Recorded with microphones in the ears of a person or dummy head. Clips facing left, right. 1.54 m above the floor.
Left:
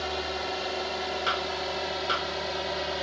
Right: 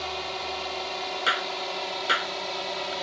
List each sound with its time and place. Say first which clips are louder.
0.0 s a drone: left 2 dB; 5° left (ahead or behind); by 3.0 s centre (ahead or behind)
1.3 s a clap: left 1 dB; 35° right (ahead or behind)